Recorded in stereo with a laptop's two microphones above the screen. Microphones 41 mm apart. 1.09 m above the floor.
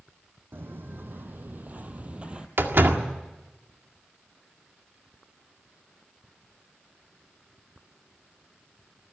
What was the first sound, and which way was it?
Footsteps, 60° right (ahead or behind).